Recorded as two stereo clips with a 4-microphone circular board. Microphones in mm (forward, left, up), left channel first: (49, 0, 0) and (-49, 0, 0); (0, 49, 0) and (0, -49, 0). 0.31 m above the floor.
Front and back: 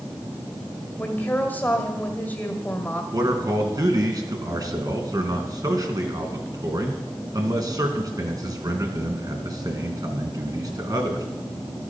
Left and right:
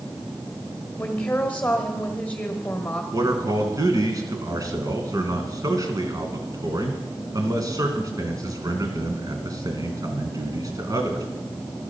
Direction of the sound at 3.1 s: 135° right.